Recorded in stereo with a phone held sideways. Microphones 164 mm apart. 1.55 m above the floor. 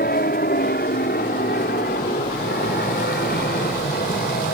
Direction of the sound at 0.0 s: 70° left (ahead or behind).